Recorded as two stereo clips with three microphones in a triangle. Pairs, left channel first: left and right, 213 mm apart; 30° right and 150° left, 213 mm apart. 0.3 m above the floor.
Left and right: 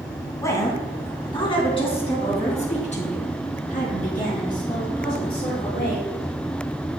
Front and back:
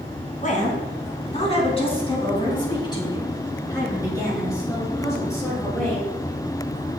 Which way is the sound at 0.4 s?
15° left.